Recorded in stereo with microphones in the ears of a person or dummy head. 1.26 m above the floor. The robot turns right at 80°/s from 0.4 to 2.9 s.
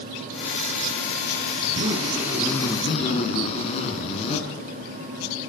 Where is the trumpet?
No trumpet in this recording.